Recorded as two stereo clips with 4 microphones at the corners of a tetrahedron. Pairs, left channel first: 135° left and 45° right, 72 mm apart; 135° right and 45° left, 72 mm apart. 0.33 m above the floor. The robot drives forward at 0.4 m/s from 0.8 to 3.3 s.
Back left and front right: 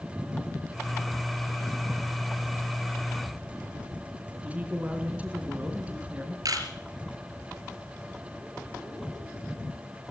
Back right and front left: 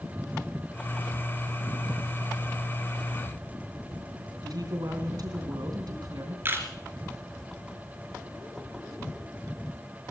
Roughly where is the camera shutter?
Ahead.